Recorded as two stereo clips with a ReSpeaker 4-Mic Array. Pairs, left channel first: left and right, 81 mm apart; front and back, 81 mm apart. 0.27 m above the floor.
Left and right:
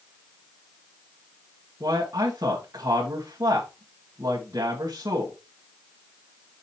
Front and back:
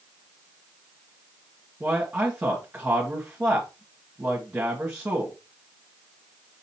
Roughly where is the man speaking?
Behind right.